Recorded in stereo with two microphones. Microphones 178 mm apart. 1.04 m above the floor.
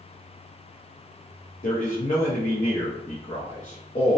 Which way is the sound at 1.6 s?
50° left (ahead or behind).